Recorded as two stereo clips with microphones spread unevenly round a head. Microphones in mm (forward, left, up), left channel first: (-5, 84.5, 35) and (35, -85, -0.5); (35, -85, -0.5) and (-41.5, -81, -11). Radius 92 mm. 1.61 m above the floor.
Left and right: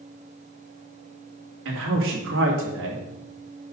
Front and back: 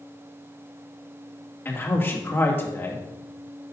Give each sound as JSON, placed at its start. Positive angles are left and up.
{"t": 1.6, "sound": "a man speaking", "azimuth_deg": -65, "distance_m": 2.5}